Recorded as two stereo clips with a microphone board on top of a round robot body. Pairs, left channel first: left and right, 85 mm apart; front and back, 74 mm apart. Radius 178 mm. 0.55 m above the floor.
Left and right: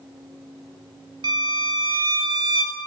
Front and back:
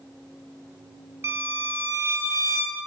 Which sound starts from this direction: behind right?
A violin, at 1.2 s.